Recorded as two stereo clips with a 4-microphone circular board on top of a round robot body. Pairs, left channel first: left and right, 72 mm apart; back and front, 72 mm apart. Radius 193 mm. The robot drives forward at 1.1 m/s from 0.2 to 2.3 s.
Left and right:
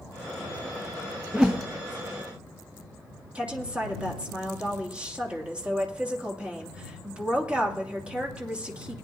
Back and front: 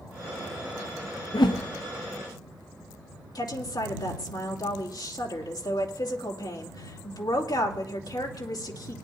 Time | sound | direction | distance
1.3 | a whoosh | 165° right | 0.7 m
3.4 | a woman speaking | 165° right | 2.5 m